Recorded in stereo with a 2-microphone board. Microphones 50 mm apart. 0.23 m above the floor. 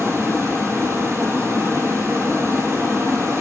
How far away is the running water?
About 1.1 m.